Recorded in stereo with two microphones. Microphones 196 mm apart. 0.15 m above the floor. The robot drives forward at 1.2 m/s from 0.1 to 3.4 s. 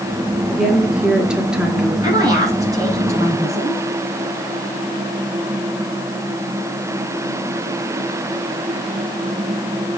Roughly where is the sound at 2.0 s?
Centre.